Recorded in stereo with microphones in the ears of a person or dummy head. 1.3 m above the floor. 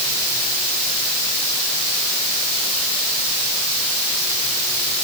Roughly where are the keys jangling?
No keys jangling in this recording.